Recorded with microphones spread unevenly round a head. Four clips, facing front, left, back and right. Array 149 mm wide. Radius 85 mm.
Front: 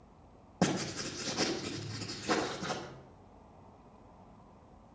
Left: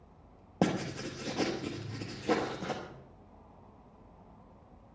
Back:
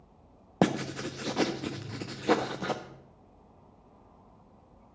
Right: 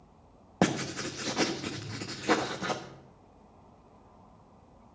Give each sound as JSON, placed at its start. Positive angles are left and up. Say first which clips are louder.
{"t": 0.6, "sound": "writing", "louder": "right 2 dB, back 5 dB", "azimuth_deg": -175, "distance_m": 1.1}